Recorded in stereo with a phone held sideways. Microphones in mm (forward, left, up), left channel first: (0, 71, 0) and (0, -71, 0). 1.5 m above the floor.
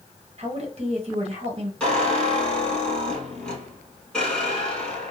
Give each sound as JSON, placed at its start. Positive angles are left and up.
{"t": 0.4, "sound": "a woman speaking", "side_deg": -50, "distance_m": 1.3}
{"t": 1.8, "sound": "a squeak", "side_deg": 5, "distance_m": 1.7}